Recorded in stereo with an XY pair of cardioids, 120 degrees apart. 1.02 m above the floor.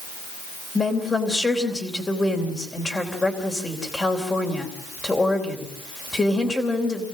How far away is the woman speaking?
About 3.5 m.